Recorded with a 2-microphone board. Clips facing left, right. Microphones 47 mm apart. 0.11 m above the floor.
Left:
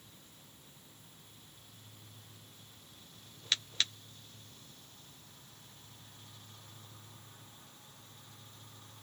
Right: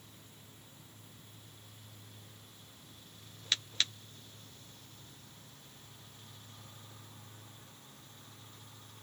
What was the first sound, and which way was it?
Only background noise.